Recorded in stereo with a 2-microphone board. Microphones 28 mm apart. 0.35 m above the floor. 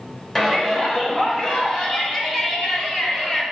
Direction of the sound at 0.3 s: 15° left (ahead or behind).